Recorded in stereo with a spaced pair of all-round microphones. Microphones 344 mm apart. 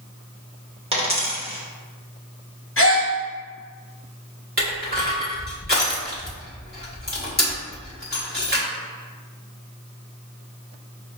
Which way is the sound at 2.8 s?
40° left (ahead or behind).